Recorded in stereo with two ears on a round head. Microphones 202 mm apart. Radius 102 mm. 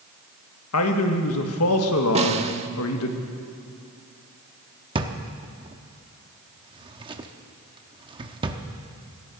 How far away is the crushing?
I don't hear crushing.